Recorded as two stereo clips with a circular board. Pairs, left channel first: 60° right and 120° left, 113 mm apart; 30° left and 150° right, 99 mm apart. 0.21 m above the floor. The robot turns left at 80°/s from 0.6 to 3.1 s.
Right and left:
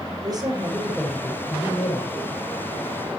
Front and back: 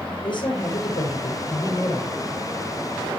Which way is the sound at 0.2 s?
70° left.